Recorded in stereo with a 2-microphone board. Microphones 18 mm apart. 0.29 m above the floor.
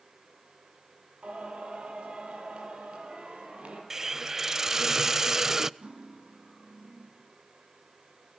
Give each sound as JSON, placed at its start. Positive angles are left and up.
{"t": 1.2, "sound": "singing", "side_deg": -75, "distance_m": 8.5}
{"t": 3.9, "sound": "a hiss", "side_deg": -20, "distance_m": 0.5}
{"t": 5.8, "sound": "cutlery clinking", "side_deg": -75, "distance_m": 7.5}